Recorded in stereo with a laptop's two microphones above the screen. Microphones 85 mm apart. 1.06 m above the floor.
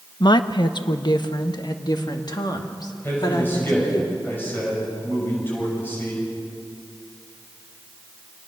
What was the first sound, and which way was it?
A woman speaking, 60° left (ahead or behind).